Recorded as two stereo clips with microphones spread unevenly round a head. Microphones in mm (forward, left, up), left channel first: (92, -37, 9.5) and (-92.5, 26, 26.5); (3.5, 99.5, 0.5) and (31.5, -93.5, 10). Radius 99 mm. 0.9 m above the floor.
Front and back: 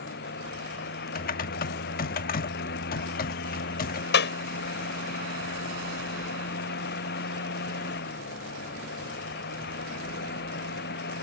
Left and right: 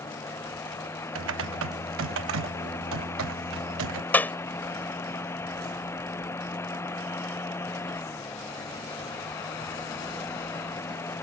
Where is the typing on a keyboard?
65° right.